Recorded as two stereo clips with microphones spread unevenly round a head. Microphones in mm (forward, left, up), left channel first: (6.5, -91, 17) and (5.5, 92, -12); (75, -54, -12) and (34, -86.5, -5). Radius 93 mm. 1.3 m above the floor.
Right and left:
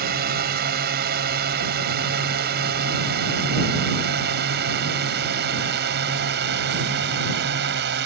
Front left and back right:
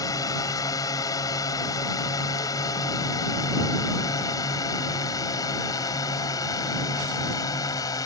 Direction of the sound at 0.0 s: 50° left.